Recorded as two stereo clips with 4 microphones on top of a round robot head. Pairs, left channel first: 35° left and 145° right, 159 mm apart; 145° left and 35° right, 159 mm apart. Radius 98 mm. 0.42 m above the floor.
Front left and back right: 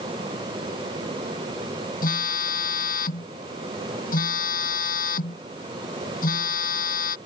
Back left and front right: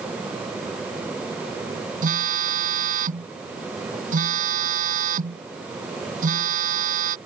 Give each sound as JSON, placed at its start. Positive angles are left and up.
{"t": 2.0, "sound": "a phone buzzing", "azimuth_deg": 0}